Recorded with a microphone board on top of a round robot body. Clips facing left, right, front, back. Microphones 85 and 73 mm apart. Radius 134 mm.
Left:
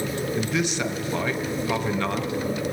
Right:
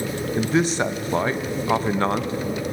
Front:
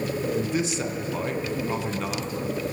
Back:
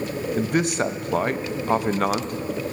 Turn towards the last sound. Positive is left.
turn(degrees=-145)